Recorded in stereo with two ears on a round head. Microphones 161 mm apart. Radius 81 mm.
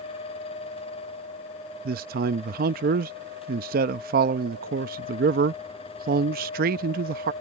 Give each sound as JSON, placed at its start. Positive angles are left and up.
{"t": 1.9, "sound": "a man speaking", "side_deg": -55}